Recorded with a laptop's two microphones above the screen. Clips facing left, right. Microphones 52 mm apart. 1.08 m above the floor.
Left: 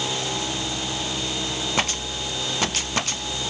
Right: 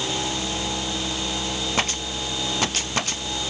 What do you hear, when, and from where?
Only background noise.